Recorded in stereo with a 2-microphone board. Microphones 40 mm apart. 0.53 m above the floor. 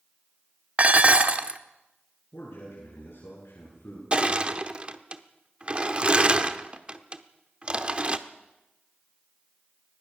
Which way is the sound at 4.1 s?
30° right (ahead or behind).